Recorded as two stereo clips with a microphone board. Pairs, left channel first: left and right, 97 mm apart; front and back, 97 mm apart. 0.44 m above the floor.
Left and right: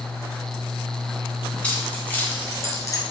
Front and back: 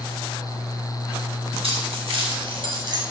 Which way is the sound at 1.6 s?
165° left.